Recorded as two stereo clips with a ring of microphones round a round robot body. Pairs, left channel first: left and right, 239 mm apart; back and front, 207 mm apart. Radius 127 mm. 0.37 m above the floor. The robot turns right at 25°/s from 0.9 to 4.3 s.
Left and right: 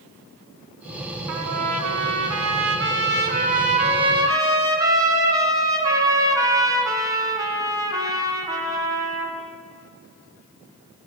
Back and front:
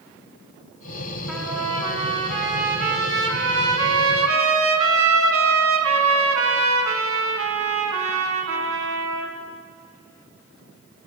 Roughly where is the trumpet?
Right.